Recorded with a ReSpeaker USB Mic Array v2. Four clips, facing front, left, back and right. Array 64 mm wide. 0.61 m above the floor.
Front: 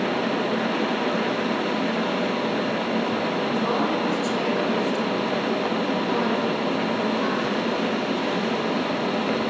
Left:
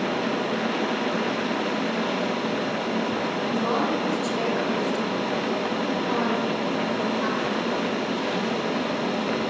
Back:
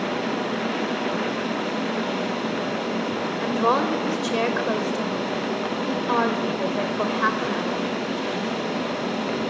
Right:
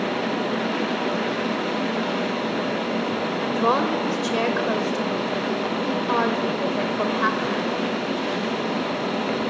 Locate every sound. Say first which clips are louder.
3.4 s a woman speaking: right 5 dB, back 6 dB; 140° right, 3 m